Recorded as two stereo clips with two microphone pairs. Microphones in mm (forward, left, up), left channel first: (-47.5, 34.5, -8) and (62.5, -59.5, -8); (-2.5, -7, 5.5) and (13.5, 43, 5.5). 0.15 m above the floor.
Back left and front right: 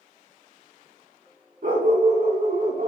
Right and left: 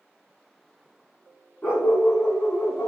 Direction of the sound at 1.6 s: 50° right.